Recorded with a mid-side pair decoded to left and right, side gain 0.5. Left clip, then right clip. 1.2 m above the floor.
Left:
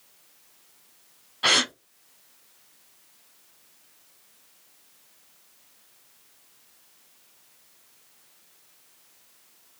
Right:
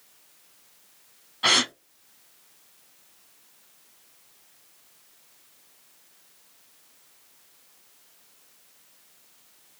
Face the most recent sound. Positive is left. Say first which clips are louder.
# even
turn(degrees=5)